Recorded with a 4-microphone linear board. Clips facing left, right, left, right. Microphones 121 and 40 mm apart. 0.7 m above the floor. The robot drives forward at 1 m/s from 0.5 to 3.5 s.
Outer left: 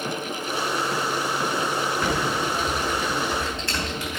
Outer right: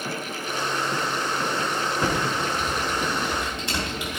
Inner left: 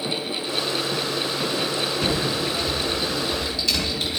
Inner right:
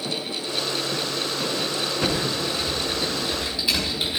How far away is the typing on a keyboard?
About 5 m.